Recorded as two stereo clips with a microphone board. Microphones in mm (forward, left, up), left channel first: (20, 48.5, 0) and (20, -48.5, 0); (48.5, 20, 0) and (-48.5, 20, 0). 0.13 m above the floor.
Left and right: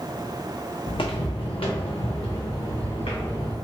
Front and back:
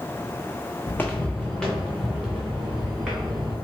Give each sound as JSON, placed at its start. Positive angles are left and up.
{"t": 0.9, "sound": "footsteps", "azimuth_deg": 65, "distance_m": 0.5}